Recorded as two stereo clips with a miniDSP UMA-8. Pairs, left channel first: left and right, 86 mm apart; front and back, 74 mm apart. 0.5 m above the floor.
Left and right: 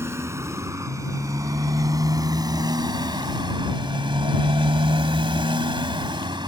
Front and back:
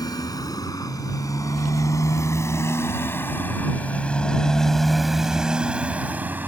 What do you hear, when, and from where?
0.0 s a motorcycle: 30° right; by 6.5 s 115° right